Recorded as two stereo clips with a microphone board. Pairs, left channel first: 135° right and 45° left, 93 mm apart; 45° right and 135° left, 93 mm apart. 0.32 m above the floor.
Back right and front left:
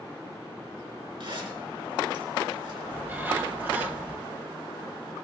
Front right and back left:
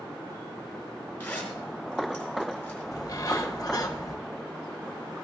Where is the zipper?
25° left, 4.5 m.